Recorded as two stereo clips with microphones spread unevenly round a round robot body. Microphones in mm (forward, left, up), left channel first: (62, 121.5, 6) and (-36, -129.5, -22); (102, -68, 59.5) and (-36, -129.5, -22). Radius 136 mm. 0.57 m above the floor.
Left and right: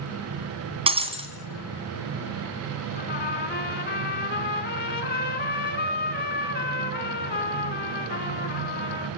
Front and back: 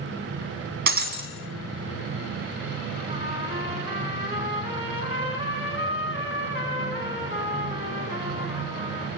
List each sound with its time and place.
0.9 s breaking glass: 175° left, 2 m
3.0 s a trumpet: 120° left, 2.5 m